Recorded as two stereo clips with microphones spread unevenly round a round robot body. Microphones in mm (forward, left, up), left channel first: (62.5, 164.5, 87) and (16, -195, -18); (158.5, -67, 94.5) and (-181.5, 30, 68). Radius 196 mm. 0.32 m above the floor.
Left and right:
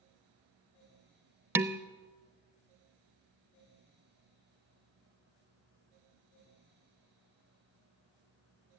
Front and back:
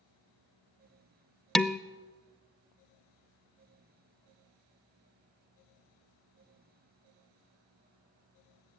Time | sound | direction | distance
1.6 | dishes clattering | 115° right | 0.5 m